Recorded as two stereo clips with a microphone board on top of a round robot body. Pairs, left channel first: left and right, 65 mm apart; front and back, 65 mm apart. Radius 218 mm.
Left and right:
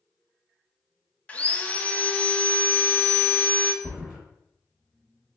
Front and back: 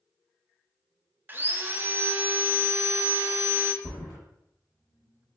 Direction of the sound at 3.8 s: 5° right.